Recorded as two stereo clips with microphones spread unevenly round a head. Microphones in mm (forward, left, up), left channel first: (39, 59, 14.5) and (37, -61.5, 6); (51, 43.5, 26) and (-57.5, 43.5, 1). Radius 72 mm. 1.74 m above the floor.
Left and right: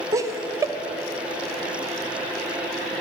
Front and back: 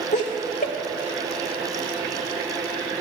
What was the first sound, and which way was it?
Laughter, 25° right.